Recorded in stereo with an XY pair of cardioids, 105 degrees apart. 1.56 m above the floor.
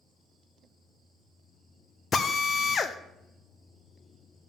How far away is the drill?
About 0.7 m.